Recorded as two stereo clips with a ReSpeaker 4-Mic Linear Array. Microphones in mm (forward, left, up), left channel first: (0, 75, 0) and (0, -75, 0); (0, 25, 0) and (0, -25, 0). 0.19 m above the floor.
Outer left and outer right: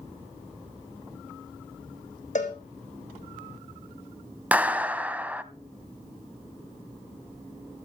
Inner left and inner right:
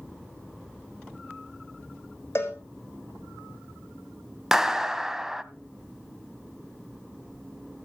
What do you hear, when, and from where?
2.4 s a cowbell: 55° left (ahead or behind), 3 m
4.5 s a clap: 10° right (ahead or behind), 0.8 m